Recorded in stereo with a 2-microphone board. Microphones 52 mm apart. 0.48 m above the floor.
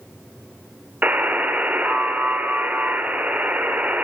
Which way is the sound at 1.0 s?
30° right (ahead or behind).